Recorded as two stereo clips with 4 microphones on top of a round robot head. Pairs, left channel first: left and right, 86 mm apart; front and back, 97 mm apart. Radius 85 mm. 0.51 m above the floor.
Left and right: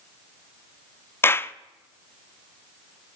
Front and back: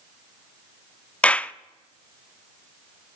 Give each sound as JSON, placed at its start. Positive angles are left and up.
{"t": 1.2, "sound": "a clap", "azimuth_deg": 65, "distance_m": 0.7}